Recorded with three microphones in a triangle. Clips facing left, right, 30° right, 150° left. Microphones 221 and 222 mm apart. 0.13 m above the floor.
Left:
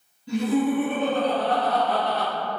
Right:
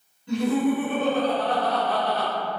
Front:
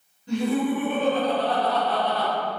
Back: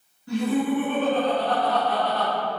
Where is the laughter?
15° left, 1.9 m; by 2.3 s 130° right, 1.9 m.